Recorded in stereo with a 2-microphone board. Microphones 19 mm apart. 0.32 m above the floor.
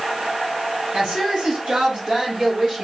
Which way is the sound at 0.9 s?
70° right (ahead or behind).